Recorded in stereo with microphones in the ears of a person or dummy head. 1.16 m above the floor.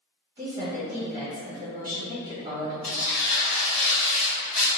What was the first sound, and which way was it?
A woman speaking, 20° right (ahead or behind).